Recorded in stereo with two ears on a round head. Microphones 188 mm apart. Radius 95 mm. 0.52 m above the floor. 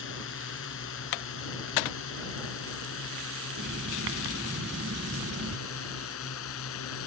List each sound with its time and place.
0.0 s a drone: 65° left (ahead or behind); by 7.1 s 75° left (ahead or behind)
3.6 s writing: 55° right (ahead or behind)